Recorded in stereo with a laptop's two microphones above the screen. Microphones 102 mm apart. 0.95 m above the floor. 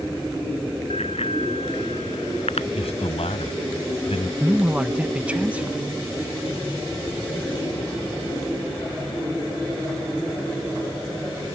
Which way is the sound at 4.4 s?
15° right (ahead or behind).